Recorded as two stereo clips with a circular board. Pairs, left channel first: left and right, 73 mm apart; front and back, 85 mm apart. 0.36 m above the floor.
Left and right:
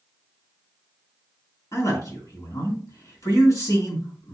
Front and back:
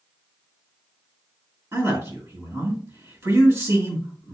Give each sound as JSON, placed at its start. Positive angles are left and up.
{"t": 1.7, "sound": "a man speaking", "azimuth_deg": 120, "distance_m": 2.5}